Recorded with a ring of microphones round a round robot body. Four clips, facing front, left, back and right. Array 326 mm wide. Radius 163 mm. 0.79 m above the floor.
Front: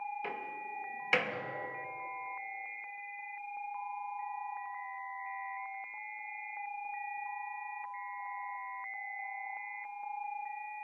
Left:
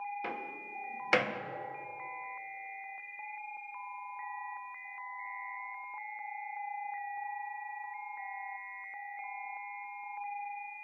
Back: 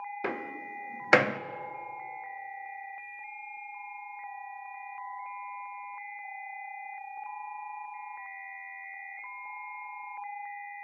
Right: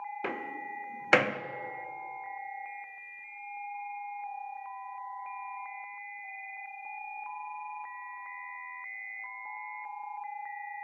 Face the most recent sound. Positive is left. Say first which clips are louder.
# right 4 dB, back 5 dB
turn(degrees=-155)